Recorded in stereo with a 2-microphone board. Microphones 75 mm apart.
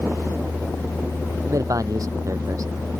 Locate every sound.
1.5 s a man speaking: 50° right (ahead or behind)